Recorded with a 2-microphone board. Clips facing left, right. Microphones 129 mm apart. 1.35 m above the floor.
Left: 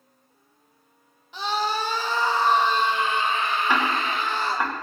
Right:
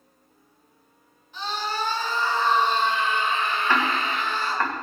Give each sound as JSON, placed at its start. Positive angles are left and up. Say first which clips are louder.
{"t": 1.3, "sound": "a scream", "louder": "left 3 dB", "side_deg": 75, "distance_m": 1.5}
{"t": 3.7, "sound": "ticking", "louder": "even", "side_deg": 10, "distance_m": 1.5}